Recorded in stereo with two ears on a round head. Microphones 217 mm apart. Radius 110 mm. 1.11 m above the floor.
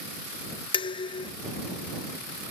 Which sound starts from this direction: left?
Dishes clattering, at 0.7 s.